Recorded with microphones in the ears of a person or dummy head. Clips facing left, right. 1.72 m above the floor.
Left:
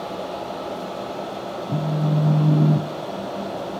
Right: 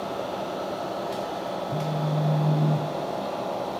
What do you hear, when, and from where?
1.7 s a phone buzzing: 55° left (ahead or behind), 0.7 m